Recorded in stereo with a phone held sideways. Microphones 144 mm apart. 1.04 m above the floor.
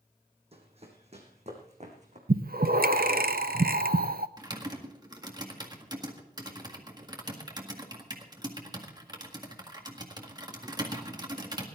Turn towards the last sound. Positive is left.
turn(degrees=-25)  # may be behind; listen again after turning